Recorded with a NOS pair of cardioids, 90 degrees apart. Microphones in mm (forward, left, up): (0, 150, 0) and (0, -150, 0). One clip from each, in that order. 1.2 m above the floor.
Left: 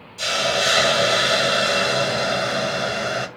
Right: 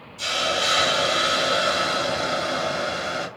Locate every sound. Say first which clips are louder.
0.2 s a hiss: left 3 dB; 55° left, 1.3 m